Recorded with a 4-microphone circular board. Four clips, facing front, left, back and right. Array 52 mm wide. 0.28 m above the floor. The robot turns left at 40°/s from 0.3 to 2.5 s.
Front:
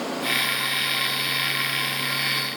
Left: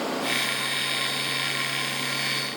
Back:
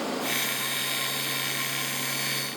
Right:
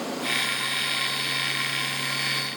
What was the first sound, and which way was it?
Only background noise.